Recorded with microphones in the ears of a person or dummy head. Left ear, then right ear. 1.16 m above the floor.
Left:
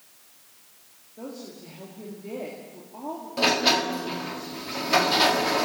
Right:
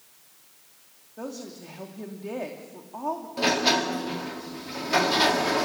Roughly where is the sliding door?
Centre.